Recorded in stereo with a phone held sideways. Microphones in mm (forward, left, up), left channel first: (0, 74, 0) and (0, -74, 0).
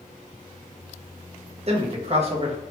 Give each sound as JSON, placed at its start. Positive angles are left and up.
{"t": 1.7, "sound": "a man speaking", "side_deg": -45, "distance_m": 0.7}